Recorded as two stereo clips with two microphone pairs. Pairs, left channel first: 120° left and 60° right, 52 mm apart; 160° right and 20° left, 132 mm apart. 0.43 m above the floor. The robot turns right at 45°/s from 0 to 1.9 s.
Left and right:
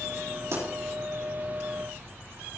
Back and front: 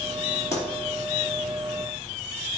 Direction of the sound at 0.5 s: 90° right.